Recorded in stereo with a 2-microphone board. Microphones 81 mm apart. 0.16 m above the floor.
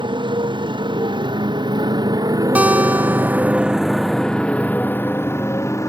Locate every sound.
0.0 s a motorcycle: 85° right; by 5.9 s 40° left (ahead or behind)
2.5 s a guitar: 20° right (ahead or behind)